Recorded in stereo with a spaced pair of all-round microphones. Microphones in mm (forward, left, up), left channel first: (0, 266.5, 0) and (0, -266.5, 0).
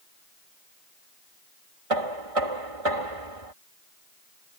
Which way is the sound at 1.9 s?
85° right.